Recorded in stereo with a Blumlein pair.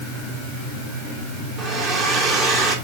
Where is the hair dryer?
25° right, 2.0 m.